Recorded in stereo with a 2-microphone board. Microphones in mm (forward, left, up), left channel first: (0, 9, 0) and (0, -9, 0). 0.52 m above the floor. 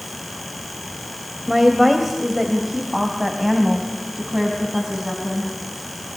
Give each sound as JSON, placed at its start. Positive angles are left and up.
{"t": 1.5, "sound": "a woman speaking", "side_deg": 0, "distance_m": 2.5}